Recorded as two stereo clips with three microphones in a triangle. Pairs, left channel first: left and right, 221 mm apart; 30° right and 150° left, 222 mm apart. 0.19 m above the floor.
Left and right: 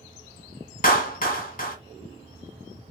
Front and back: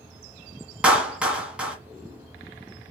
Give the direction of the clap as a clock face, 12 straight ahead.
10 o'clock.